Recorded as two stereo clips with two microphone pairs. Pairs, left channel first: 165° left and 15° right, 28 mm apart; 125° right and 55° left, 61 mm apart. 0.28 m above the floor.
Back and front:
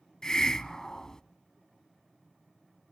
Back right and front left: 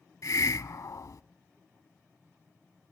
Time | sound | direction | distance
0.2 | a hiss | 135° right | 0.5 m